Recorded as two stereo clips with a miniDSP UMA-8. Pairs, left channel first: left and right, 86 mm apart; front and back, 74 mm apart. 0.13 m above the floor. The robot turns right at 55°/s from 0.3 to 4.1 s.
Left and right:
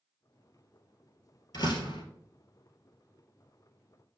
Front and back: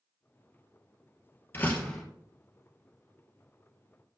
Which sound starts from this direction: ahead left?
A door slam, at 1.5 s.